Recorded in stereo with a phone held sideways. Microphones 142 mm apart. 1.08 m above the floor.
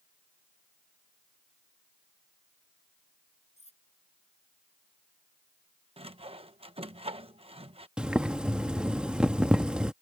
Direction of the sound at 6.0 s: 45° right (ahead or behind).